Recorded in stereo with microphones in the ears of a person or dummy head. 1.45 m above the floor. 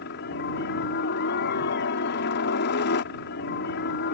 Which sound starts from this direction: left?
A helicopter, at 0.0 s.